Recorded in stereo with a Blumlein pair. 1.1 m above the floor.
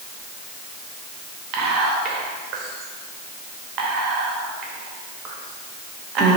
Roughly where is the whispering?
Ahead right.